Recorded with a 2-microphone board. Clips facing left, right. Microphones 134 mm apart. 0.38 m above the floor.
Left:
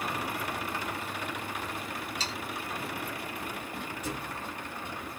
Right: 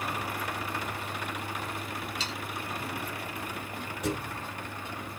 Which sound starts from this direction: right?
A thud, at 4.0 s.